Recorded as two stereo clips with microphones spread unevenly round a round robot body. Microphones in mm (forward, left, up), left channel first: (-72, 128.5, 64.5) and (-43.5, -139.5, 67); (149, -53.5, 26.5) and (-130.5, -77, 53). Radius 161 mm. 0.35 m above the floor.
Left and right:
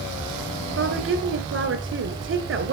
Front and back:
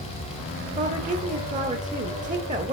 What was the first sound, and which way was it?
A woman speaking, 115° right.